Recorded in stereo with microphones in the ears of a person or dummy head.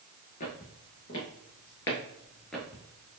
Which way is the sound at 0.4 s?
35° left (ahead or behind).